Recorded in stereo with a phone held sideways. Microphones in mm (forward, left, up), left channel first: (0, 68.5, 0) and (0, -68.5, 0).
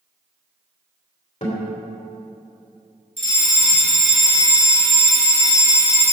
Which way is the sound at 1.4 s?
55° left (ahead or behind).